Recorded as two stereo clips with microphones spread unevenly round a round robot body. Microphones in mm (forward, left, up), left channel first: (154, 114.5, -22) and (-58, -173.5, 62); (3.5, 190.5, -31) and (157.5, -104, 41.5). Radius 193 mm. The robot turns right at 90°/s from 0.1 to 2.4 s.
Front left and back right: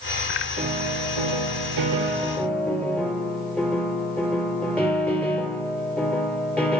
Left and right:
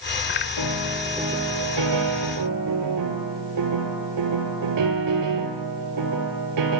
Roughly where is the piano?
Behind.